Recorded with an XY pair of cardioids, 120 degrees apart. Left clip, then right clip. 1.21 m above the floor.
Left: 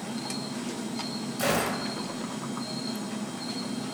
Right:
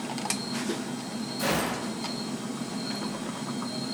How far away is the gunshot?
About 0.8 m.